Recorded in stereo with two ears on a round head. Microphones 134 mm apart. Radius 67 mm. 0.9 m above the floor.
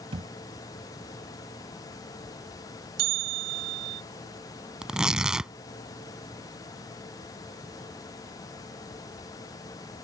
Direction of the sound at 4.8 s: 5° right (ahead or behind).